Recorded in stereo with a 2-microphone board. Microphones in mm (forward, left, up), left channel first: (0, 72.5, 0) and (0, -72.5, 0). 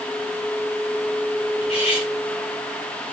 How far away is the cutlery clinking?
About 5.5 m.